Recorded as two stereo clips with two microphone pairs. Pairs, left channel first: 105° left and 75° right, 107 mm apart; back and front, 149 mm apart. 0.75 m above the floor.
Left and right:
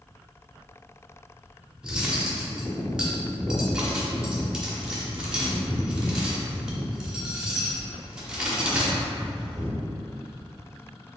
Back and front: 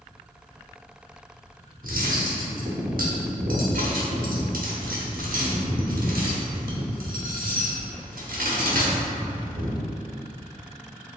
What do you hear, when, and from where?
1.8 s cutlery clinking: 10° left, 0.8 m